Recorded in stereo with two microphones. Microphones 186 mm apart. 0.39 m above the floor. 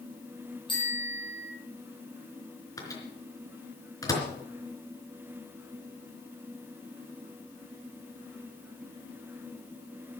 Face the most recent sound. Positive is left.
turn(degrees=20)  # may be behind; listen again after turning